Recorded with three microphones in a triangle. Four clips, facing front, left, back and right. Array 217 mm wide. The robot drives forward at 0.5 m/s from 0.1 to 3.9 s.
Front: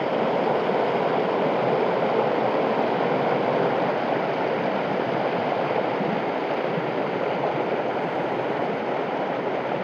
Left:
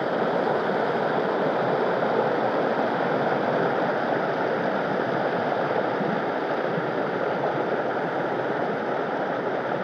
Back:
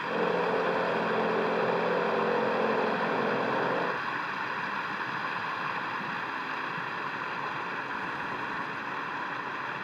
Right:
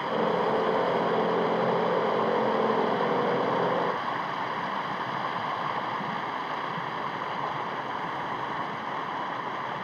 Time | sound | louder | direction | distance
0.0 | running water | left 2 dB, front 6 dB | 40° left | ?